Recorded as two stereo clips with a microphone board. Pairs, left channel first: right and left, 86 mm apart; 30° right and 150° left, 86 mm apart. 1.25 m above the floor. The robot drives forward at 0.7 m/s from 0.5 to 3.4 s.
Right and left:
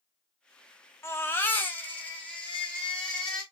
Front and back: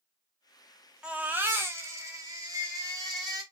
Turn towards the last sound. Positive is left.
turn(degrees=-170)